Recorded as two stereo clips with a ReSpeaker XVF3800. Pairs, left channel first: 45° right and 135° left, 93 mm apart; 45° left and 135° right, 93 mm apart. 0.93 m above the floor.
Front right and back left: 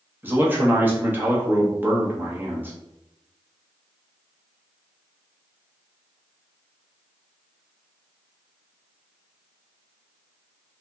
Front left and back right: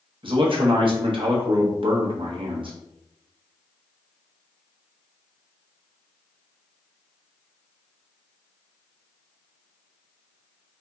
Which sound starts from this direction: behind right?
A man speaking, at 0.2 s.